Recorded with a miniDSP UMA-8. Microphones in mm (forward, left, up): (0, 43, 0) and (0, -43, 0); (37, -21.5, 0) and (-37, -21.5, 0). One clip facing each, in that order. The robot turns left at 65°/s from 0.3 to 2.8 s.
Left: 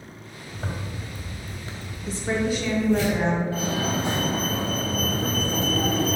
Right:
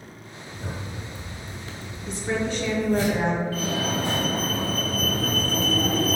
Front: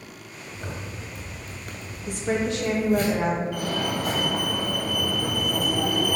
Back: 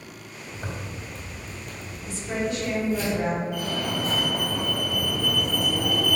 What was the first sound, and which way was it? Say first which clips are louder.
A zipper: left 2 dB, back 1 dB; 115° left.